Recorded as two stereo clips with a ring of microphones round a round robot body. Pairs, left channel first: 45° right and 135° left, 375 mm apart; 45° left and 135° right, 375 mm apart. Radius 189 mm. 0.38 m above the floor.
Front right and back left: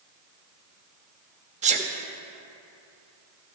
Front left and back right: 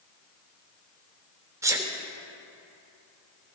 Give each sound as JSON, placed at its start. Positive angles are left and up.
{"t": 1.6, "sound": "a sneeze", "azimuth_deg": 160, "distance_m": 1.0}